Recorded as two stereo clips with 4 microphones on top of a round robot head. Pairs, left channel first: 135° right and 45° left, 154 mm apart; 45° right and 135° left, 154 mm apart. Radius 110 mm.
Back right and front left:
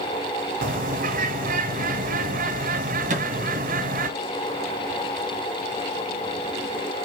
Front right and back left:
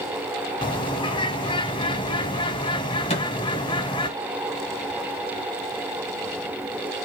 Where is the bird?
15° left, 0.9 m.